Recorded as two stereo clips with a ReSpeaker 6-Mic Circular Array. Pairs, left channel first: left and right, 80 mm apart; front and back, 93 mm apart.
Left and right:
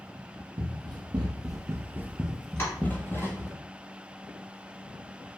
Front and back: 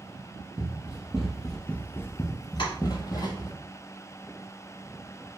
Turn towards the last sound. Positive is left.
turn(degrees=30)